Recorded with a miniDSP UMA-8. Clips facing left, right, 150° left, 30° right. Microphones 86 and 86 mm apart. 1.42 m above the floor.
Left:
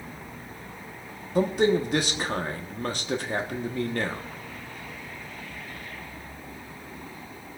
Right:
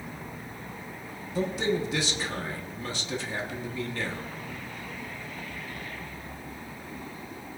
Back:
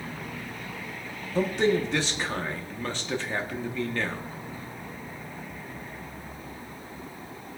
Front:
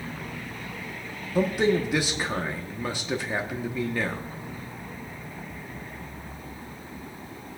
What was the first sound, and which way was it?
A man speaking, 50° left.